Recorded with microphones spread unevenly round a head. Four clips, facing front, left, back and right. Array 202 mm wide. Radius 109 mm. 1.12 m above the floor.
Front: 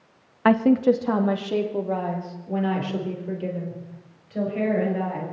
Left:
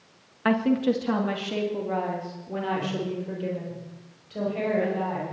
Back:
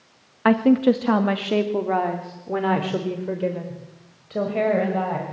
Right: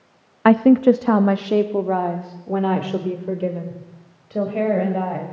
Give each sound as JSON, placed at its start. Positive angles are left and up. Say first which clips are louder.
{"t": 0.5, "sound": "a woman speaking", "louder": "right 10 dB, back 1 dB", "azimuth_deg": -95, "distance_m": 1.5}